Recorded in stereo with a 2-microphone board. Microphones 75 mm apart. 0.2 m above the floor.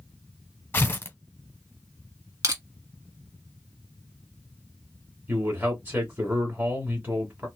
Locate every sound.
0.7 s tearing paper: 25° left (ahead or behind), 1.1 m
2.4 s crushing: 50° right (ahead or behind), 1.4 m
5.3 s a man speaking: 25° right (ahead or behind), 1.3 m